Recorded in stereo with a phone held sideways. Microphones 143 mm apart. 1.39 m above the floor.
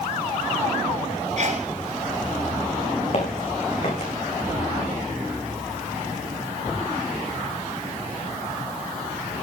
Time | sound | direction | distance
1.4 | a sneeze | 60° right (ahead or behind) | 5 m
3.1 | footsteps | 55° left (ahead or behind) | 6 m